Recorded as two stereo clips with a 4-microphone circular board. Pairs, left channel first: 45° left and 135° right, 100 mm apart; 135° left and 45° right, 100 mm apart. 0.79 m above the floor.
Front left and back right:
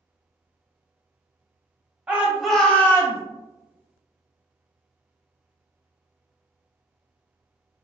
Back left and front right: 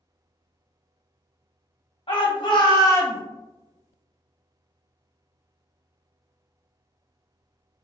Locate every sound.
2.1 s a shout: 150° left, 1.3 m; by 3.2 s 85° left, 0.9 m